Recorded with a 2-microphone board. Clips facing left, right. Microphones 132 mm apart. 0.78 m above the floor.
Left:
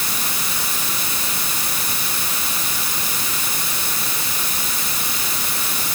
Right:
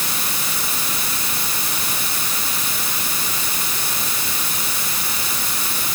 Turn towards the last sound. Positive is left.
No sound to turn to.